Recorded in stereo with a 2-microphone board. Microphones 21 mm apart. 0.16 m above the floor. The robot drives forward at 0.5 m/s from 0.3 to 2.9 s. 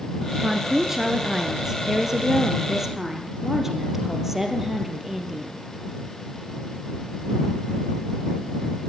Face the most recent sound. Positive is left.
turn(degrees=-10)  # may be behind; listen again after turning